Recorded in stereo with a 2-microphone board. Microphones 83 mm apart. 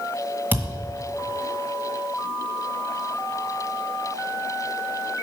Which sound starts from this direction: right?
A thud, at 0.5 s.